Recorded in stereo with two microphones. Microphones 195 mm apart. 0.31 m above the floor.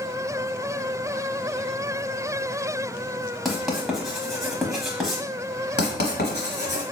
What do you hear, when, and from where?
3.5 s writing: centre (ahead or behind), 0.9 m
5.8 s writing: 60° left (ahead or behind), 1.0 m